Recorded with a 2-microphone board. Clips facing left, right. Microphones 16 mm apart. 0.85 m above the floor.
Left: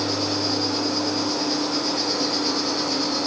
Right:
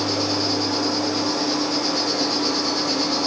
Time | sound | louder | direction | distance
0.0 | an insect | right 2 dB | 35° right (ahead or behind) | 4 m